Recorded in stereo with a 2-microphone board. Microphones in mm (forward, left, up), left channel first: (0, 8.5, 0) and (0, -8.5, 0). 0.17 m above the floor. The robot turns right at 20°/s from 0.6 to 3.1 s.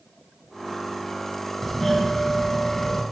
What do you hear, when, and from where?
1.6 s a doorbell: 15° left (ahead or behind), 1.6 m; by 3.0 s 20° left (ahead or behind), 1.6 m